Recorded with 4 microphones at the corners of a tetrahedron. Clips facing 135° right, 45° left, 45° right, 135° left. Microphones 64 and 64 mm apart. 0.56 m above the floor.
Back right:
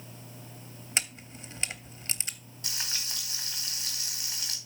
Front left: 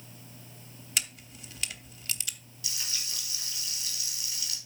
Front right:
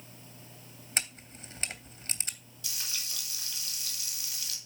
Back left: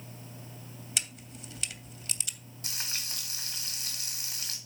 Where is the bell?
No bell in this recording.